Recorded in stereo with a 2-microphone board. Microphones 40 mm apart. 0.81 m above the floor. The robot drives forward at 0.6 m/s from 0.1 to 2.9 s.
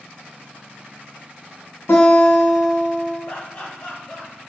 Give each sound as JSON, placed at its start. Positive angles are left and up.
{"t": 1.9, "sound": "a guitar", "side_deg": 75, "distance_m": 1.7}
{"t": 3.3, "sound": "laughter", "side_deg": 55, "distance_m": 1.7}